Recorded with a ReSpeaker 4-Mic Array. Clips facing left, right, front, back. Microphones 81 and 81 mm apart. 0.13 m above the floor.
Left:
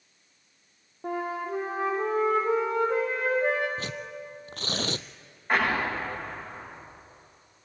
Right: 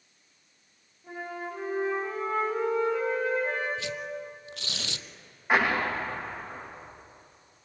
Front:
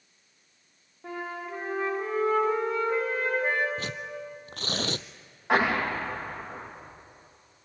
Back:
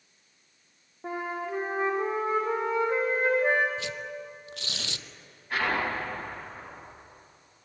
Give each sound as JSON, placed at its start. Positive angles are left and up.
{"t": 1.0, "sound": "a flute", "azimuth_deg": 110, "distance_m": 5.0}
{"t": 3.8, "sound": "tearing paper", "azimuth_deg": 45, "distance_m": 0.7}
{"t": 5.5, "sound": "an explosion", "azimuth_deg": -5, "distance_m": 7.5}